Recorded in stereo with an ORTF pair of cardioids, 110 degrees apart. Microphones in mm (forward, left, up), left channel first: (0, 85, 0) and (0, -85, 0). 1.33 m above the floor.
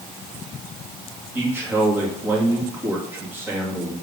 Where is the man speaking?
10° right, 2 m.